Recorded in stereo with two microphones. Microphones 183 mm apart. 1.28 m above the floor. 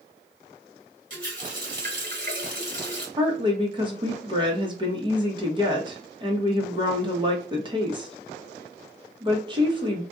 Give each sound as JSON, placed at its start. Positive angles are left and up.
{"t": 1.1, "sound": "a running tap", "side_deg": -50, "distance_m": 1.4}
{"t": 3.2, "sound": "a woman speaking", "side_deg": -25, "distance_m": 0.9}